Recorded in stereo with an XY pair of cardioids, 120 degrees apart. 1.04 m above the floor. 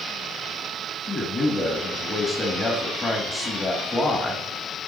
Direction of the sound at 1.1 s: 30° left.